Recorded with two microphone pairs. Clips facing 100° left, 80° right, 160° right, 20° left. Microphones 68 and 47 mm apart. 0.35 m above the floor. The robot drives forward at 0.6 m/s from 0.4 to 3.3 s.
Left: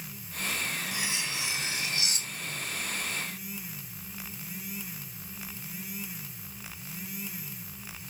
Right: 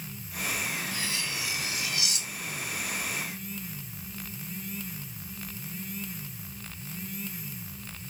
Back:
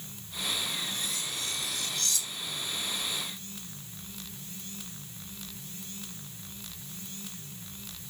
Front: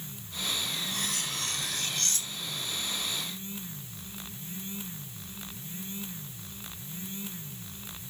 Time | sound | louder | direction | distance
0.9 | cutlery clinking | even, front 2 dB | 30° left | ?